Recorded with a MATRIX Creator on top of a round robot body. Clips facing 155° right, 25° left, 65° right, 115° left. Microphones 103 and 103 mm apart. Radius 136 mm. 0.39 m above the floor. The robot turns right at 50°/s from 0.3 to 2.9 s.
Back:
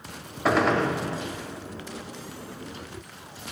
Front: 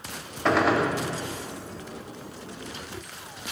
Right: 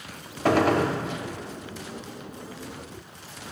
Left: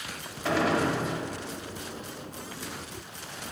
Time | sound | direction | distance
0.5 | a gunshot | 75° right | 0.7 m